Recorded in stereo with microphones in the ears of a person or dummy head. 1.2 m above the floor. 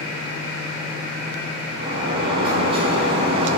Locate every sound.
1.8 s a sliding door: 30° right (ahead or behind), 4 m